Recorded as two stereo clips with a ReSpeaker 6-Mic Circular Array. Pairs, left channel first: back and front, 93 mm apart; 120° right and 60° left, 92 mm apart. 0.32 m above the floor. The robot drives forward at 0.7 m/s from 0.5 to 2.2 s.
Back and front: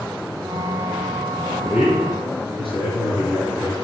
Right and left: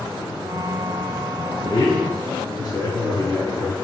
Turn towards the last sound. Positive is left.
turn(degrees=-170)